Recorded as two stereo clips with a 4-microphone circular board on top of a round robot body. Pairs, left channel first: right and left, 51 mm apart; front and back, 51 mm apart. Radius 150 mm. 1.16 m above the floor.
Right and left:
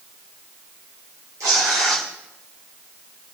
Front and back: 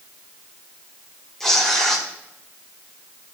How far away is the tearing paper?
About 1.2 m.